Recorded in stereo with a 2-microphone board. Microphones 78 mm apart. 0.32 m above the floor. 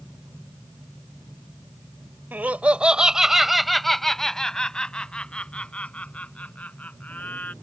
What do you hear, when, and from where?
2.3 s laughter: 20° right (ahead or behind); by 7.5 s 20° left (ahead or behind)